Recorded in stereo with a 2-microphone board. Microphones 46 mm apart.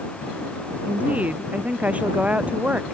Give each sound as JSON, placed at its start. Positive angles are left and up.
{"t": 0.9, "sound": "a woman speaking", "side_deg": -35}